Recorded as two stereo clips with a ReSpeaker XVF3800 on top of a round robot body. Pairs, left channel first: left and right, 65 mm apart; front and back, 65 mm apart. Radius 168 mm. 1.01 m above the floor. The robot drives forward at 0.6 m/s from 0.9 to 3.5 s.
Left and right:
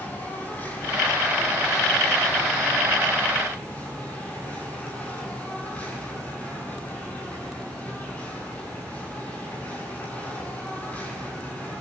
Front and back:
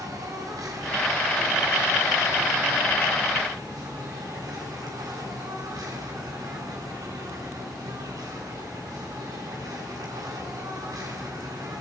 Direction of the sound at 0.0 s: 155° left.